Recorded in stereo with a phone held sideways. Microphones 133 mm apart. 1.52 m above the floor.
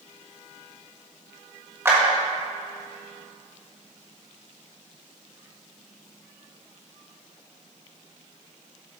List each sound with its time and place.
1.9 s a clap: 20° right (ahead or behind), 1.6 m